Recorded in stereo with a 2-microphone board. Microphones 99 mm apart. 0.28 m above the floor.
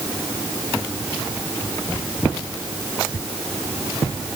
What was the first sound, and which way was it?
Only background noise.